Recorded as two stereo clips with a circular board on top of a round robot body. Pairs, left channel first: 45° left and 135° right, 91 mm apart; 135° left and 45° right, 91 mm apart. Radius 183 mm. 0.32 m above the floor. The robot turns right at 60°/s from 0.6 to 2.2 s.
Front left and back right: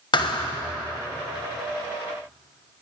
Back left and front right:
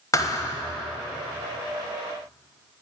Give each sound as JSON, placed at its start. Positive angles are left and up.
{"t": 0.1, "sound": "a thud", "azimuth_deg": 80, "distance_m": 1.3}